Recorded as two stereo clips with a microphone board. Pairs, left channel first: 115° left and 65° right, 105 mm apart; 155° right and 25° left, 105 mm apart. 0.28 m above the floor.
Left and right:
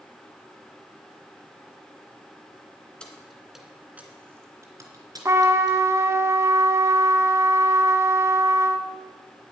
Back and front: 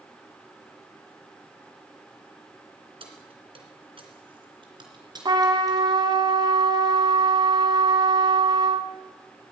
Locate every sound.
3.0 s keys jangling: 30° left, 2.5 m; by 5.9 s 30° right, 3.5 m
5.2 s a trumpet: 10° right, 1.0 m